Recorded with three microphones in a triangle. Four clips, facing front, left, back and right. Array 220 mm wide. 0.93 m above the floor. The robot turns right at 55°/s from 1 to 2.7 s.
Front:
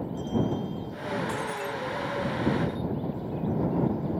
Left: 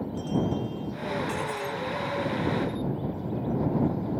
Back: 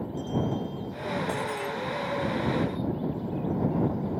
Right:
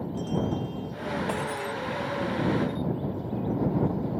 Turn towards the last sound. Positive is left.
turn(degrees=-50)